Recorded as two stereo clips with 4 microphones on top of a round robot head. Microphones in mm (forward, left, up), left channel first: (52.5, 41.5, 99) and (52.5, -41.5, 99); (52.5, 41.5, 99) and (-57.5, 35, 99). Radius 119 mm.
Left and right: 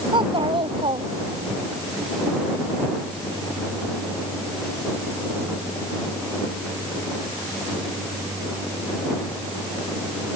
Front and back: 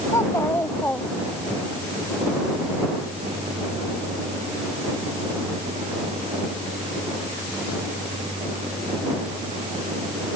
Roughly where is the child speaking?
Ahead right.